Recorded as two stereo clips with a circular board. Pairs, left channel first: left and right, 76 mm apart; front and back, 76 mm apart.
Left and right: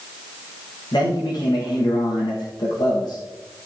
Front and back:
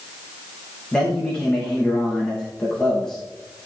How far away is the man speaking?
About 8.5 m.